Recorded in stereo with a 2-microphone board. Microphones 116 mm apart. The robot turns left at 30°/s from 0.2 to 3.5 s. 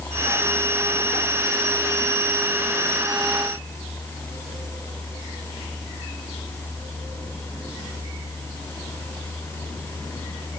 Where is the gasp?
I don't hear a gasp.